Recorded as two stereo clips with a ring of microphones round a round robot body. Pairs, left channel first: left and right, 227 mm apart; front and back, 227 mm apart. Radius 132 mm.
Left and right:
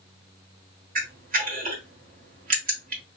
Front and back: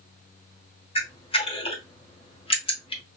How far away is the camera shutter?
About 1.0 m.